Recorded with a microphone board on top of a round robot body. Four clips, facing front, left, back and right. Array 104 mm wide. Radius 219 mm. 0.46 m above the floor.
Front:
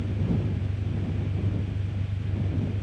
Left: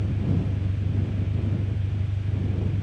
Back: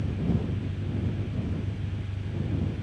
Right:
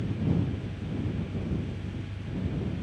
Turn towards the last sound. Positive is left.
turn(degrees=70)